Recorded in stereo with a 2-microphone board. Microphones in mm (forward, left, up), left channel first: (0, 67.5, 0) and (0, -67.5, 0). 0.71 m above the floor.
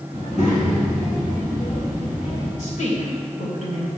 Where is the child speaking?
50° left (ahead or behind), 3 m; by 2.5 s 75° left (ahead or behind), 6 m.